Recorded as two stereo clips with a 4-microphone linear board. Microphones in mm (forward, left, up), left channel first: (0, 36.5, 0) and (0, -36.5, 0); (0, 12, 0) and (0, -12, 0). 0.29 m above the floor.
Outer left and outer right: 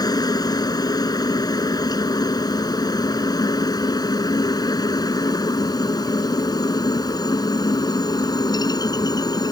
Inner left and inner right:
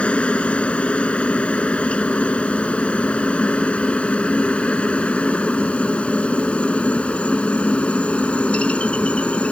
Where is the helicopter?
60° left (ahead or behind).